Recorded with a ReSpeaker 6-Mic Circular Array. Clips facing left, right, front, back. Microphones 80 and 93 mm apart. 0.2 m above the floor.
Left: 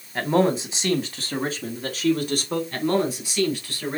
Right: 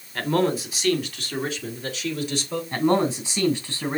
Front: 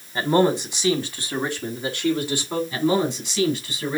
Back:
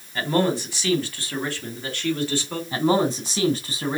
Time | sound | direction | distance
0.1 | a man speaking | 40° left | 1.5 m
2.7 | a man speaking | 145° right | 2.5 m